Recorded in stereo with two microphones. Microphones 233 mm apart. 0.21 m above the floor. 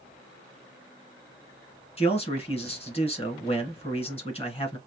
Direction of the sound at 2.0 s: 25° left (ahead or behind).